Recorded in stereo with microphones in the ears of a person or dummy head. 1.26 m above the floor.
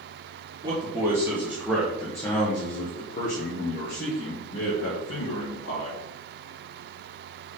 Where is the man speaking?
25° right (ahead or behind), 1.3 m; by 6.0 s 70° left (ahead or behind), 2 m.